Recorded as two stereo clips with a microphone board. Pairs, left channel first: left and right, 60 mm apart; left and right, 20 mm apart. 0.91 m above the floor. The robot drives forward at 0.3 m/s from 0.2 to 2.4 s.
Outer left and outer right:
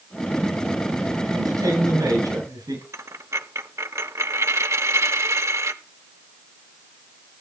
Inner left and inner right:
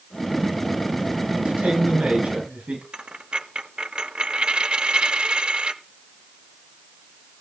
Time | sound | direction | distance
1.3 | a man speaking | 70° right (ahead or behind) | 9.5 m
2.9 | a dropped coin | 50° right (ahead or behind) | 1.0 m